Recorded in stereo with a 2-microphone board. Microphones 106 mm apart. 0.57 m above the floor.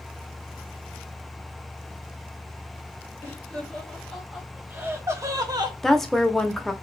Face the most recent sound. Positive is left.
turn(degrees=5)  # may be behind; listen again after turning